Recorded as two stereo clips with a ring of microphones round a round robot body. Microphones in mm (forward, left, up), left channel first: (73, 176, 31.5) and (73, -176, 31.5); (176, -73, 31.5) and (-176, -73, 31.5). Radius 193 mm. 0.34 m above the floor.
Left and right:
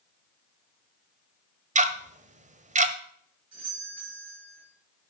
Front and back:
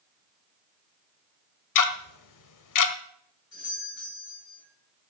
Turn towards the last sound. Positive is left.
turn(degrees=-45)